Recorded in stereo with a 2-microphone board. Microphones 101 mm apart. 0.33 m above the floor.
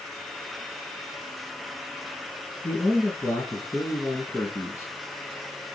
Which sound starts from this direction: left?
A man speaking, at 2.6 s.